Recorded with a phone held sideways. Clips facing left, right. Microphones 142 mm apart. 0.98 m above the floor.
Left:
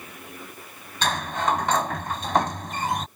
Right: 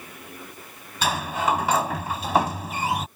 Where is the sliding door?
5° right (ahead or behind).